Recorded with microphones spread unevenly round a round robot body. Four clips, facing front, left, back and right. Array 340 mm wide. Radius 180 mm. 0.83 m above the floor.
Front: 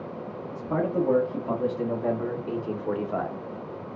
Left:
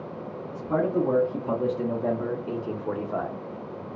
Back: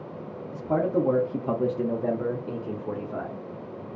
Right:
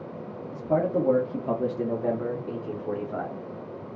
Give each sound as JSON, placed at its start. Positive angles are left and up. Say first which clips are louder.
{"t": 0.5, "sound": "a man speaking", "louder": "even, back 2 dB", "azimuth_deg": -165, "distance_m": 1.6}